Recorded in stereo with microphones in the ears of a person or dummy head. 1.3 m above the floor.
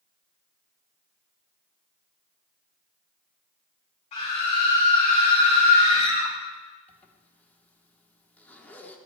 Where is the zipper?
10° left (ahead or behind), 1.1 m.